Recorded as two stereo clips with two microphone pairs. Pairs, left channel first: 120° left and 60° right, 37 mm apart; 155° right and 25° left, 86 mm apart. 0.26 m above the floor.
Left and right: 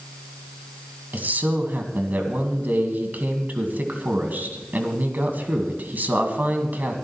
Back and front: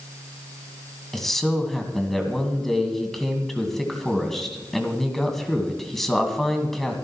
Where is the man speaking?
65° right, 2 m.